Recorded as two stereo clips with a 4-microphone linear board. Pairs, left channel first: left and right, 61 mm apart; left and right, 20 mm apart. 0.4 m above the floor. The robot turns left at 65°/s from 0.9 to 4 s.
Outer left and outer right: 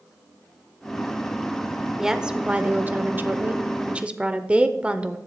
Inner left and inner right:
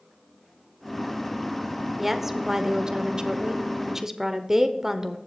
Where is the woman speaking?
5° right (ahead or behind), 0.9 m; by 5.2 s 20° right (ahead or behind), 0.9 m.